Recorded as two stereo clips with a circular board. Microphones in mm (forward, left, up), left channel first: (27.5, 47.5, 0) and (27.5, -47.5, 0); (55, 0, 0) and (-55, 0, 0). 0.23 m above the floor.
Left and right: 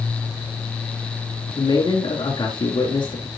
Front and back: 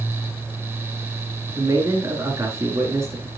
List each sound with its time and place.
1.6 s a man speaking: 115° left, 3 m